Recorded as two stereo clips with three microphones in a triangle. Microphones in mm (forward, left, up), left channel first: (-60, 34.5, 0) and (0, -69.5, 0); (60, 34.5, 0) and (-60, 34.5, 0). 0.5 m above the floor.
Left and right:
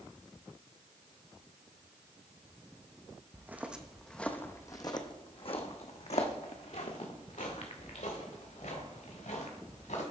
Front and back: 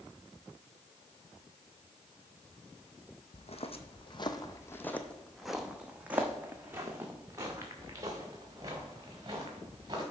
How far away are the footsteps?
About 0.9 m.